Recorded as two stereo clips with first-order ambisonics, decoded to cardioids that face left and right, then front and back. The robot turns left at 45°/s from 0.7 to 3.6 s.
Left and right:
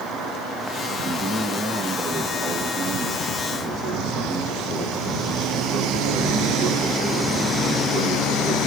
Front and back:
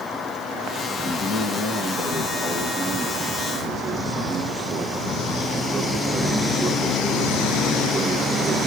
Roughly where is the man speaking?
Ahead left.